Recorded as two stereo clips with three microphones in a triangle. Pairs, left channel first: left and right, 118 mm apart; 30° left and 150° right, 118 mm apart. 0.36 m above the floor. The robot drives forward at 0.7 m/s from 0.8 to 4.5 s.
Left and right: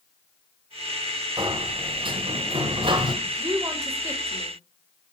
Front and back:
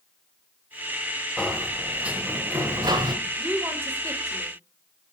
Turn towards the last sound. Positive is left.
turn(degrees=-135)